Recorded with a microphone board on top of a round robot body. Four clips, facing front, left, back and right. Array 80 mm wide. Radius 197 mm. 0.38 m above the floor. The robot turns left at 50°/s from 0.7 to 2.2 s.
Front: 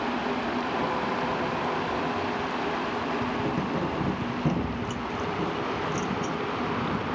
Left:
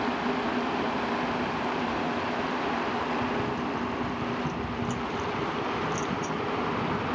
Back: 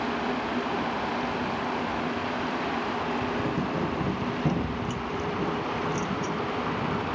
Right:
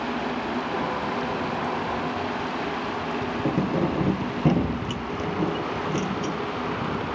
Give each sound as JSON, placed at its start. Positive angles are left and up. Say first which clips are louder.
{"t": 3.5, "sound": "keys jangling", "louder": "right 6 dB, even", "azimuth_deg": -90}